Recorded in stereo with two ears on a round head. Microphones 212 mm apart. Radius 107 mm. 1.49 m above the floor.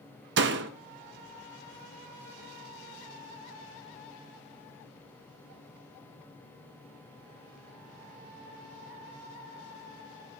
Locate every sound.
0.4 s a door slam: 50° right (ahead or behind), 1.0 m